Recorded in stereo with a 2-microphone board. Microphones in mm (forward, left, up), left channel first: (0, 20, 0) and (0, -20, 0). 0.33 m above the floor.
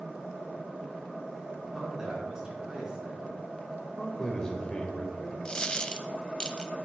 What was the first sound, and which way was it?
A man speaking, 15° right (ahead or behind).